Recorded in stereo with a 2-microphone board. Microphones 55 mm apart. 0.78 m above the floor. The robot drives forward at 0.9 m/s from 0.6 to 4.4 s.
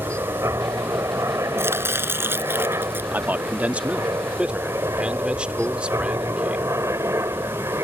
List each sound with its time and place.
0.0 s a helicopter: 65° right (ahead or behind); by 7.8 s 60° right (ahead or behind)
1.6 s chopping: 45° right (ahead or behind); by 3.0 s 40° right (ahead or behind)
3.1 s a man speaking: 35° right (ahead or behind); by 6.7 s 20° right (ahead or behind)